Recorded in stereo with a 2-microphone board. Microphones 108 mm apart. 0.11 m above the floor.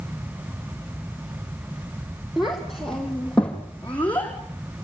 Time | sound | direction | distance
2.4 | a child speaking | centre (ahead or behind) | 3.5 m